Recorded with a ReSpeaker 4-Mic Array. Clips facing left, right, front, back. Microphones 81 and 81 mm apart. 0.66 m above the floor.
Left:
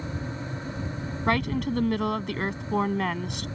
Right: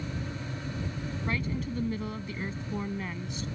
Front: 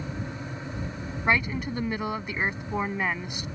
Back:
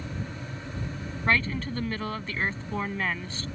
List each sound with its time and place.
1.3 s a woman speaking: 75° left